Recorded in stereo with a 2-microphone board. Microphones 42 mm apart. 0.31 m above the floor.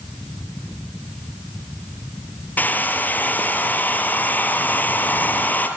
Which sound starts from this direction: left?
A hair dryer, at 2.6 s.